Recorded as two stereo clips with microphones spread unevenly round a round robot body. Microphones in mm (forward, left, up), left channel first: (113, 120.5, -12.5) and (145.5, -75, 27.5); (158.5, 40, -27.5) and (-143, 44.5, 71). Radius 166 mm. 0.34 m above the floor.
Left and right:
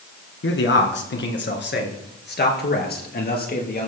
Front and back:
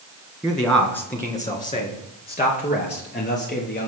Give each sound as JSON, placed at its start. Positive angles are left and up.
{"t": 0.4, "sound": "a man speaking", "azimuth_deg": 85, "distance_m": 3.0}